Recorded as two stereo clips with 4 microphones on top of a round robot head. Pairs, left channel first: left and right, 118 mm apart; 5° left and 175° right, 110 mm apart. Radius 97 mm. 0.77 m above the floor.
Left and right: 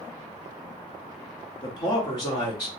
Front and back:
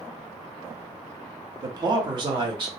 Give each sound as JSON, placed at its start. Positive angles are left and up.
{"t": 1.6, "sound": "a man speaking", "azimuth_deg": 140, "distance_m": 1.1}